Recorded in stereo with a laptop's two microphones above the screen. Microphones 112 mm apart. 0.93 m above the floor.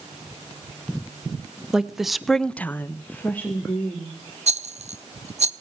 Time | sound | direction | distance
1.7 | a woman speaking | 5° right (ahead or behind) | 1.2 m
4.5 | a rattle | 65° right (ahead or behind) | 0.6 m